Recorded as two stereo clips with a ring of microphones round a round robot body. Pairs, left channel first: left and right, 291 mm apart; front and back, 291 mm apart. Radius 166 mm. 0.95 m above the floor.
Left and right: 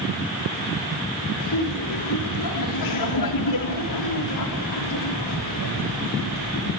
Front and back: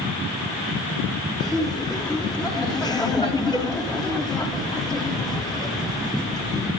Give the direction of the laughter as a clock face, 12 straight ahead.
9 o'clock.